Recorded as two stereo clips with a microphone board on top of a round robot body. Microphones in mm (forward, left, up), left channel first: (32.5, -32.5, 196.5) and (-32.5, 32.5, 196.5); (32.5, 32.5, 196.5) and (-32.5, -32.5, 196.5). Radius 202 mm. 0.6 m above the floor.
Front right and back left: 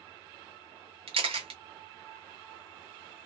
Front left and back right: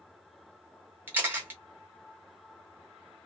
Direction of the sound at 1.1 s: 155° left.